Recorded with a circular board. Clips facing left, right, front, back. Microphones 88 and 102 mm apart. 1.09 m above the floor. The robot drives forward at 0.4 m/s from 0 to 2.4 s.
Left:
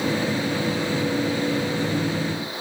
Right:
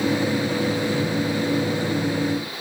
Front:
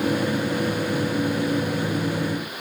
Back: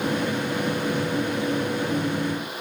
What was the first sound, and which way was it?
Only background noise.